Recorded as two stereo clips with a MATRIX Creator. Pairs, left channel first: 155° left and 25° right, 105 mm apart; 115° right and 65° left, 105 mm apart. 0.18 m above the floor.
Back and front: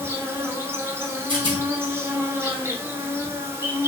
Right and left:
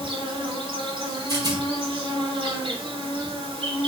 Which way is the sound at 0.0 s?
40° left.